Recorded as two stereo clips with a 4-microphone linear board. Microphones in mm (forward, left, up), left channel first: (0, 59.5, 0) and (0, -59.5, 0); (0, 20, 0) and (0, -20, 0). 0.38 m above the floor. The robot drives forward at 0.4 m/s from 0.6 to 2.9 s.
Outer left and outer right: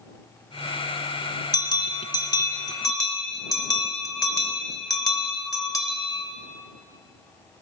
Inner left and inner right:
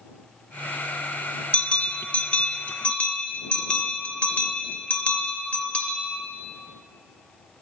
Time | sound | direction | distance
1.5 | a bell | 35° left (ahead or behind) | 0.6 m